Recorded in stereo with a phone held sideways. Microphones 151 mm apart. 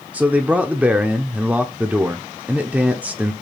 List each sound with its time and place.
0.1 s a man speaking: 10° right (ahead or behind), 0.6 m